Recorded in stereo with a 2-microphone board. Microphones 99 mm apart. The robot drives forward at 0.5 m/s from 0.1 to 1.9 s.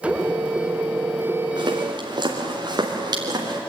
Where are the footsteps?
50° right (ahead or behind), 3.5 m; by 3.6 s 45° right (ahead or behind), 5 m.